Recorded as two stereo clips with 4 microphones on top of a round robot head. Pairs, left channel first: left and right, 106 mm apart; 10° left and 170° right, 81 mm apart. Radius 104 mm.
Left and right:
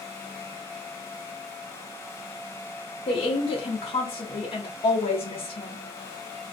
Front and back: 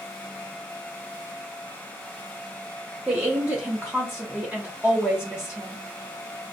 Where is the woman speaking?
115° left, 0.6 m.